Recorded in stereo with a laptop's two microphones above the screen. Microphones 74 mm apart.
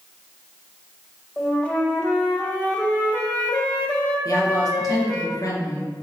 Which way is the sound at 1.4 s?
20° left (ahead or behind).